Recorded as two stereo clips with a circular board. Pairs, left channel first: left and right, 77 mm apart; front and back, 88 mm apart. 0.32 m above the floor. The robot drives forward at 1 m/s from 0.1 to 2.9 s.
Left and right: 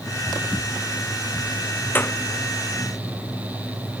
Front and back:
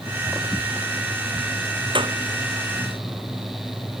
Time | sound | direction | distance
1.9 | a clap | 155° left | ?